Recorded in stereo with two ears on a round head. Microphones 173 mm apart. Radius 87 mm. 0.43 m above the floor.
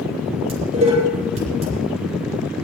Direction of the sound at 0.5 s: 35° right (ahead or behind).